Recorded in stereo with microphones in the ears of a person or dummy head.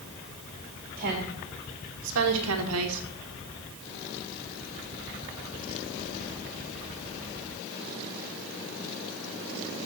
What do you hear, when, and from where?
1.0 s a woman speaking: 50° right (ahead or behind), 3 m; by 3.0 s 65° right (ahead or behind), 1.2 m